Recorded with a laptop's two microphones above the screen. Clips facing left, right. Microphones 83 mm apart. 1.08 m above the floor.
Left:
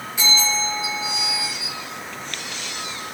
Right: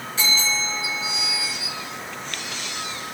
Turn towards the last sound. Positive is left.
turn(degrees=15)  # may be behind; listen again after turning